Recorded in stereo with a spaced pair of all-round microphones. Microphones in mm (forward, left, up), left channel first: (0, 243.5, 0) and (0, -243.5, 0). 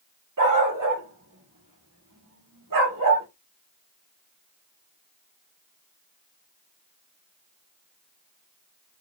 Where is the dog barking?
40° right (ahead or behind), 1.1 m.